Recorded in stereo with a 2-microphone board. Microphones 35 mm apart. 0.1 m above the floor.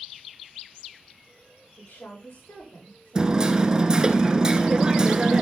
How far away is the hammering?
About 1.3 m.